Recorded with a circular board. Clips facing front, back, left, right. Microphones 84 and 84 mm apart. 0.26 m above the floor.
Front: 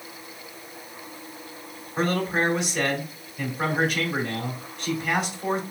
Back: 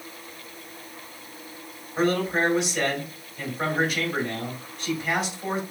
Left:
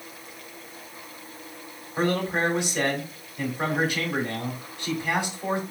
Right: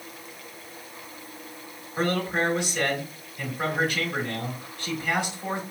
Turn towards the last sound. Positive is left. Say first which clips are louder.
# back 1 dB, left 1 dB
turn(degrees=100)